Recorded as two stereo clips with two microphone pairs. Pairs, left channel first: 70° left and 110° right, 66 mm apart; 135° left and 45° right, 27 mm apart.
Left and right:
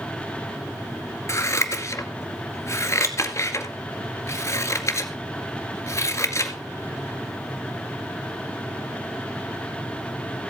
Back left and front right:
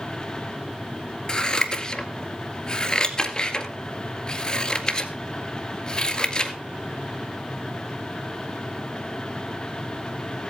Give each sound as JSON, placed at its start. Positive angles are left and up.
{"t": 1.3, "sound": "scissors", "azimuth_deg": 85, "distance_m": 1.8}